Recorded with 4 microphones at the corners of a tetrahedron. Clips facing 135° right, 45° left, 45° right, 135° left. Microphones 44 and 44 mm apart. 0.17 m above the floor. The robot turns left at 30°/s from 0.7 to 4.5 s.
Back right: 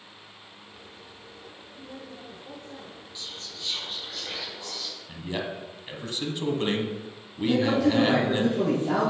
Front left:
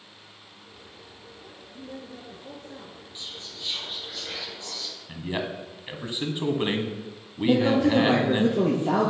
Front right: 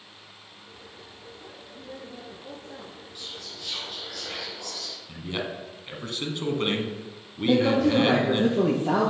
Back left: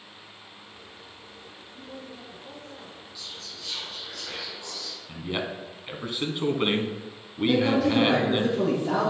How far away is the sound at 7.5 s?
About 5.5 m.